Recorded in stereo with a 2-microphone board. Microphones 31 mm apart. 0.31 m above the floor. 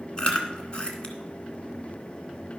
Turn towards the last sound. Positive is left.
turn(degrees=30)  # may be behind; listen again after turning